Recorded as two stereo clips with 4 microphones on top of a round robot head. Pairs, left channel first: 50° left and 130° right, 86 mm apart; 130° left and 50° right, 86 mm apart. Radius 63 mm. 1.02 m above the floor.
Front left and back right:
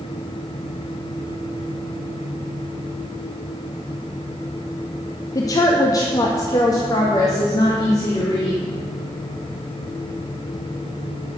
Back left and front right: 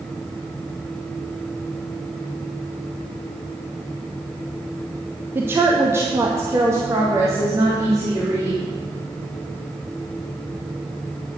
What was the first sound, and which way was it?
A woman speaking, 10° left.